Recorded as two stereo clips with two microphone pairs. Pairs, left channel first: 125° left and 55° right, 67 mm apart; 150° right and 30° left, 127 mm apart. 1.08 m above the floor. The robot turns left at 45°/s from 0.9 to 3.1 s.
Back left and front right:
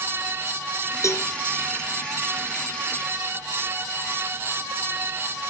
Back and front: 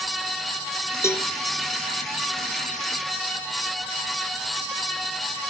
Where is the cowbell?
145° left, 1.0 m; by 1.3 s 135° left, 1.0 m.